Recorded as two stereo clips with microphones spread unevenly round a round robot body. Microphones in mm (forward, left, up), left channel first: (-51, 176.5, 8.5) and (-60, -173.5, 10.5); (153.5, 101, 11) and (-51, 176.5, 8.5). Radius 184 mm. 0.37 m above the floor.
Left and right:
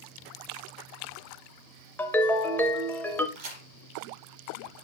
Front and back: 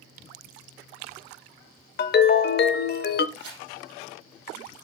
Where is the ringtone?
5° left, 0.6 m.